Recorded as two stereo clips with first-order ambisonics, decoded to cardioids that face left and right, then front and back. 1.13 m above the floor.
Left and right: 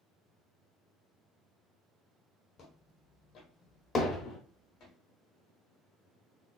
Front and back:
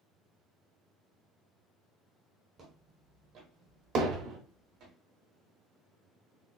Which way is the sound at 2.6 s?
135° left.